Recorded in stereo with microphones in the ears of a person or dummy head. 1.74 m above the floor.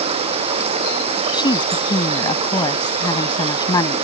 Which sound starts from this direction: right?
Running water, at 0.0 s.